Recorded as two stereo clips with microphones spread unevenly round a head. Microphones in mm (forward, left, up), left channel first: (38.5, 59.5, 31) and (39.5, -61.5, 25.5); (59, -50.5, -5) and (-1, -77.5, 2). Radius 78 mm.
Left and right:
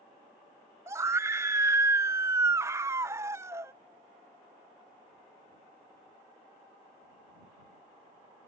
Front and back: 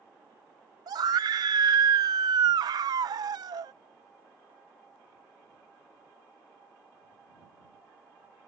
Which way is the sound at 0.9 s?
155° right.